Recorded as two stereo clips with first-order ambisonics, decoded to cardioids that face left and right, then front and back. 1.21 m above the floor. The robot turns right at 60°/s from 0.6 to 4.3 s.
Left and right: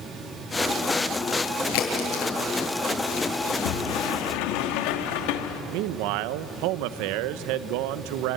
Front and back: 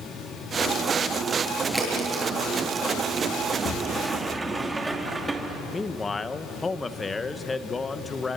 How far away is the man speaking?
About 0.9 m.